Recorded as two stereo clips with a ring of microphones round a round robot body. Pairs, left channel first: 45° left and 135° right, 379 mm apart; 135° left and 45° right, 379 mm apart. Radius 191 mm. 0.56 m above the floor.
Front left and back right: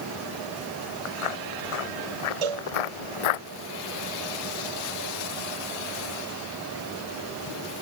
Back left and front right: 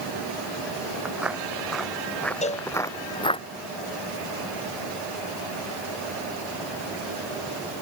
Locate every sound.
1.1 s footsteps: 40° left; by 3.4 s 60° left
2.4 s a cowbell: 150° right